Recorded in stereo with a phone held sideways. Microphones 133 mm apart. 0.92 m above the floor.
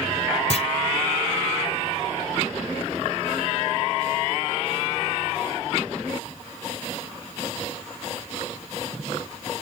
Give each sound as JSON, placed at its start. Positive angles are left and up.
{"t": 0.5, "sound": "a clunk", "side_deg": 55}